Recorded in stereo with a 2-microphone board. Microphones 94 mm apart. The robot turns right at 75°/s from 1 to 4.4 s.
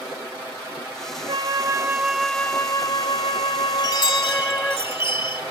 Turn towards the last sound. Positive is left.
turn(degrees=90)